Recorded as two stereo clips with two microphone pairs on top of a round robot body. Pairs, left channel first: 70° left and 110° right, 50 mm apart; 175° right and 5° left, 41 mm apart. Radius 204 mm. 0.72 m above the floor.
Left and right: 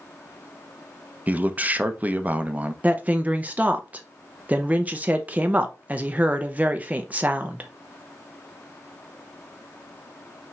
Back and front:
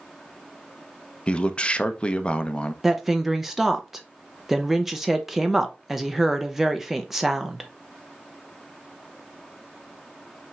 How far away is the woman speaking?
About 0.7 m.